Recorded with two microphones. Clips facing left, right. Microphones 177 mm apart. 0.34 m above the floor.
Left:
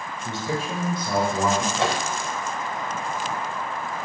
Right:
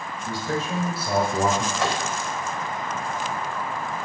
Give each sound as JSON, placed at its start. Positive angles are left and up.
{"t": 0.2, "sound": "a man speaking", "side_deg": 25, "distance_m": 1.0}
{"t": 1.8, "sound": "a microwave", "side_deg": 25, "distance_m": 0.8}